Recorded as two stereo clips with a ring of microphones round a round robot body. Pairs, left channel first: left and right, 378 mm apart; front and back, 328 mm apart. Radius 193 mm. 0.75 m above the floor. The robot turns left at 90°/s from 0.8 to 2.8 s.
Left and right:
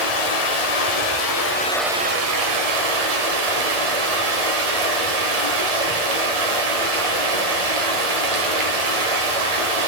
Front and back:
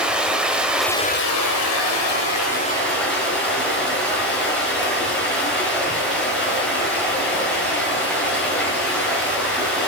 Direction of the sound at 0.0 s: 95° left.